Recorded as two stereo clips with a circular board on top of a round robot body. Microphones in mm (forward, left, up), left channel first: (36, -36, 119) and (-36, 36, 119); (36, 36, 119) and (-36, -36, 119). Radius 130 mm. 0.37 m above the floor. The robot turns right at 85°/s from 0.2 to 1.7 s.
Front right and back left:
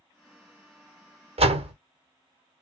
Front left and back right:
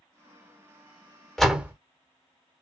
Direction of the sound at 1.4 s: 130° left.